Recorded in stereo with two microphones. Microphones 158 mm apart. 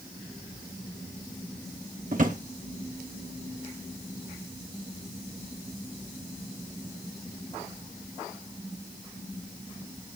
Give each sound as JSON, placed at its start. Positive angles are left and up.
{"t": 2.1, "sound": "a drawer", "side_deg": -55, "distance_m": 0.9}